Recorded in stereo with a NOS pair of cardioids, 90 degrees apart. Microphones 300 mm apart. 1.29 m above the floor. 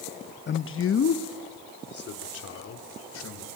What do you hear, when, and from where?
0.5 s a man speaking: 35° left, 0.8 m; by 3.5 s 55° left, 4.5 m